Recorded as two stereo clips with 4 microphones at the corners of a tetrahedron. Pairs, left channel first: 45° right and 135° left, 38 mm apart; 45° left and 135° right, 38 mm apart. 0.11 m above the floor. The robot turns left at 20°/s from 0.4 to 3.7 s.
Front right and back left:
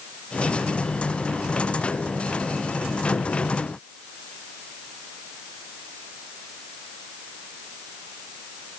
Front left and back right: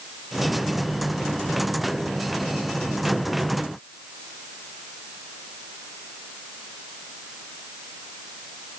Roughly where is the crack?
I don't hear a crack.